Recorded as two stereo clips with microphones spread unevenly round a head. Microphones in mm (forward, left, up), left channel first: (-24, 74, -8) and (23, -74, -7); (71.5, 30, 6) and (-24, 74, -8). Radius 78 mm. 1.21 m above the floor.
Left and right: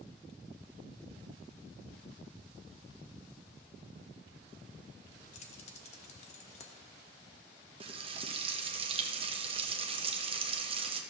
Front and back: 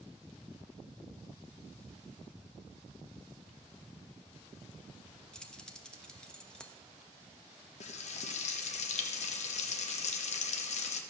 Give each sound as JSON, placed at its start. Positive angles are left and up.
{"t": 5.3, "sound": "keys jangling", "azimuth_deg": 55, "distance_m": 1.1}
{"t": 7.8, "sound": "frying", "azimuth_deg": -15, "distance_m": 0.9}